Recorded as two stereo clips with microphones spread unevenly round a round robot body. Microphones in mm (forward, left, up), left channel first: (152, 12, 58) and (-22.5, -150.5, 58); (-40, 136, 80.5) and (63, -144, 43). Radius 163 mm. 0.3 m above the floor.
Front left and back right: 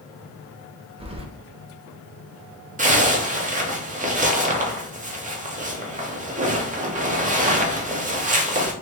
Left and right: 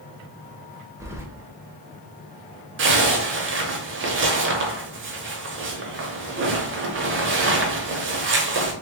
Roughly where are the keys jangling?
Behind right.